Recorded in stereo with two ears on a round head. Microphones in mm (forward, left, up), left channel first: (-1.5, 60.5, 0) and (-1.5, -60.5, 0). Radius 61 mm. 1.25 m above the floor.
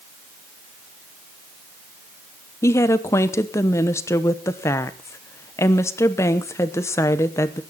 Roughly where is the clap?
I don't hear a clap.